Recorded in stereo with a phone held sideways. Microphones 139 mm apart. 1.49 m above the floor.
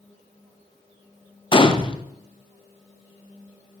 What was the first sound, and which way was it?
A gunshot, 40° left (ahead or behind).